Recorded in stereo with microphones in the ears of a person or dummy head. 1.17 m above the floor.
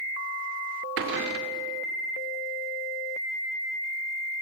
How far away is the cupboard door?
About 1.8 m.